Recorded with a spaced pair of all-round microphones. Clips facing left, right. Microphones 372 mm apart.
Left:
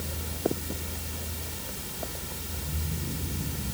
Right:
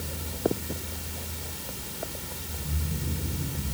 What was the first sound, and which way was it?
Only background noise.